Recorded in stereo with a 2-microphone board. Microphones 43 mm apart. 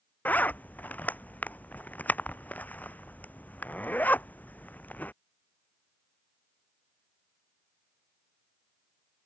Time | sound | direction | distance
0.2 | a zipper | 40° left (ahead or behind) | ?